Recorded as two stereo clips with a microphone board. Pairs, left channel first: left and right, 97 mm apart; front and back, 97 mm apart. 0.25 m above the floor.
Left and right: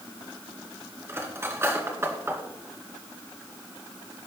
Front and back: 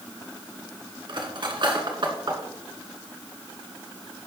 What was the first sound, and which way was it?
Cutlery clinking, 150° right.